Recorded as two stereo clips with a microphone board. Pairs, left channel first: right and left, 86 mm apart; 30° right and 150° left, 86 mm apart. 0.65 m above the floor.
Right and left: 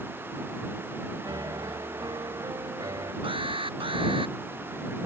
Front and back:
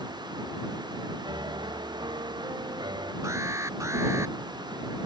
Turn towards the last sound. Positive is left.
turn(degrees=95)